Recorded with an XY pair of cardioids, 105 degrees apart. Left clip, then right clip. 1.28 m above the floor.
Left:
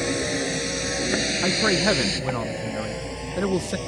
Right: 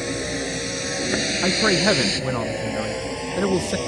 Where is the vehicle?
5° left; by 3.9 s 45° right.